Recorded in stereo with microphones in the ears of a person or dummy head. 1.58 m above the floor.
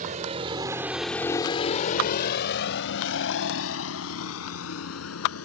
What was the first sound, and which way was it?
A vehicle, 40° right (ahead or behind).